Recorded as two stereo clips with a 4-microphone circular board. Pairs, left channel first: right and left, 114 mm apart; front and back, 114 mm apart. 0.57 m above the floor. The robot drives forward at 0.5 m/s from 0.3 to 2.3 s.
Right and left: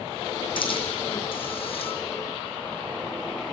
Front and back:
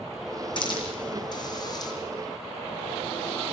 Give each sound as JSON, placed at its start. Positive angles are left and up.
{"t": 0.6, "sound": "a hiss", "azimuth_deg": -50, "distance_m": 4.5}